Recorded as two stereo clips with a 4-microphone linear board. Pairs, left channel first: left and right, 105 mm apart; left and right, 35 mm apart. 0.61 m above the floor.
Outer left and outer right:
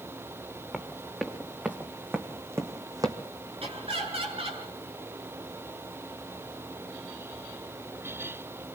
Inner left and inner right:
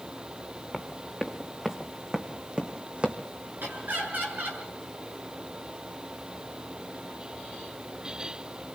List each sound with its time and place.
0.7 s running footsteps: 5° right (ahead or behind), 2.5 m; by 3.2 s 35° right (ahead or behind), 1.8 m
3.6 s laughter: 65° right (ahead or behind), 7.5 m